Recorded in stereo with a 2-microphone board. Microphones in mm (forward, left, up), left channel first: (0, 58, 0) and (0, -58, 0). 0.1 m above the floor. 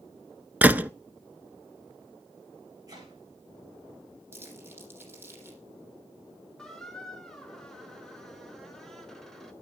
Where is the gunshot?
15° right (ahead or behind), 0.6 m.